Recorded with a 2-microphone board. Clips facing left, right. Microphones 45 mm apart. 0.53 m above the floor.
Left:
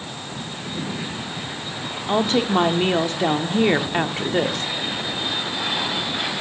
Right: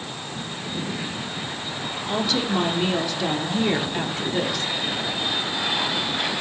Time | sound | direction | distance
2.1 | a woman speaking | 40° left (ahead or behind) | 0.9 m